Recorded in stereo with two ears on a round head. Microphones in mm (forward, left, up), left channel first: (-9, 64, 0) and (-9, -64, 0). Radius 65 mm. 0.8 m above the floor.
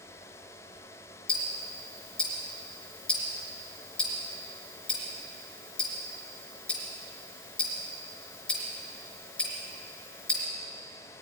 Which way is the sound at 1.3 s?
10° left (ahead or behind).